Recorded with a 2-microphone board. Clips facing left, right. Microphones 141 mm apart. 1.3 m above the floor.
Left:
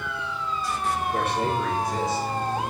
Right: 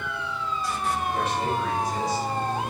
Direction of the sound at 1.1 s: 60° left (ahead or behind).